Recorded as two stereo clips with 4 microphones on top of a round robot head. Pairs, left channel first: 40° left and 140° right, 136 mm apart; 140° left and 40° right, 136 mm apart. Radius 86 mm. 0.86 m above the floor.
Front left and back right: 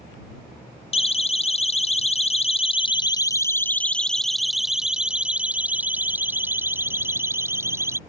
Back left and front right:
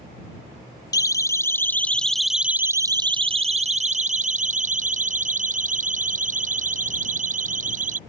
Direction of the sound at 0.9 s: 80° left.